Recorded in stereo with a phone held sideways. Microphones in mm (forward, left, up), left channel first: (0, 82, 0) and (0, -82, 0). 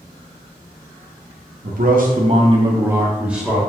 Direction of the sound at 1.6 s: 60° right (ahead or behind).